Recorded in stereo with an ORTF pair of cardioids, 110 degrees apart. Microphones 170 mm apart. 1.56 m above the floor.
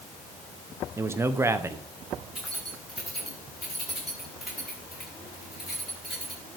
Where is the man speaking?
15° right, 1.0 m.